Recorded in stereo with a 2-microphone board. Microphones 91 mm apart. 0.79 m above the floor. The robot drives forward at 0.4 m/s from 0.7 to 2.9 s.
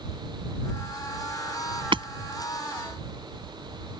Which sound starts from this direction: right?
Hammering, at 1.9 s.